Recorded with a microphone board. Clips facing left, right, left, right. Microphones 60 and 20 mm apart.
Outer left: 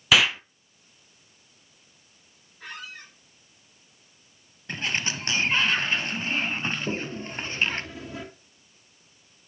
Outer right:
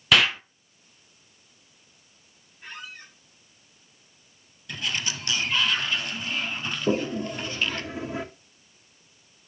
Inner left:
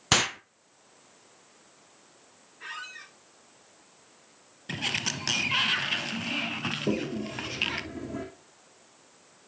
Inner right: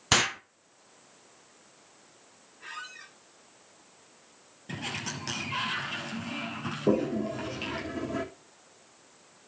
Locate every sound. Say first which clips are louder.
0.1 s an explosion: even, even; 5° left (ahead or behind), 0.6 m
2.6 s a squeak: outer left 1 dB, inner left 2 dB; 75° left (ahead or behind), 7 m
4.7 s a sliding door: outer left 2 dB, inner left 5 dB; 35° left (ahead or behind), 1.3 m
6.9 s a toilet flushing: outer right 6 dB, inner right 9 dB; 20° right (ahead or behind), 2.5 m